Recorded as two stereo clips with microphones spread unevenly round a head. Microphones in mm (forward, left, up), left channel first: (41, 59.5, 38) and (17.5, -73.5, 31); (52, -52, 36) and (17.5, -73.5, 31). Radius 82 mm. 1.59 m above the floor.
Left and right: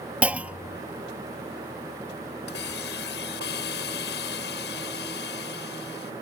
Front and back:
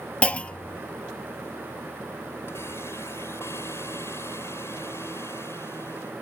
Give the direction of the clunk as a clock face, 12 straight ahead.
1 o'clock.